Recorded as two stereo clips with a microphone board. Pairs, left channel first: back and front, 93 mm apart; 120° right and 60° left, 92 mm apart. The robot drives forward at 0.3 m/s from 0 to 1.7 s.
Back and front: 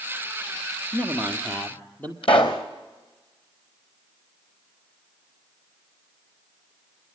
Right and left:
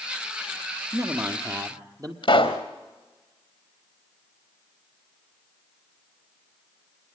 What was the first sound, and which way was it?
A man speaking, 105° left.